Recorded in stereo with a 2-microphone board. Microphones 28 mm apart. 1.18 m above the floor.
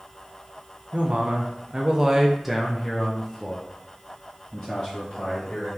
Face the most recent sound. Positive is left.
turn(degrees=35)  # may be behind; listen again after turning